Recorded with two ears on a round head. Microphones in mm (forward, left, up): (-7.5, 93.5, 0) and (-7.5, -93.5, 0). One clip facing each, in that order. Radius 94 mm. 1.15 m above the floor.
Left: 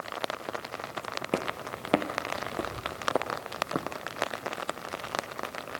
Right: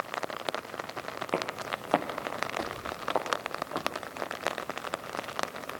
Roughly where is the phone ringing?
I don't hear a phone ringing.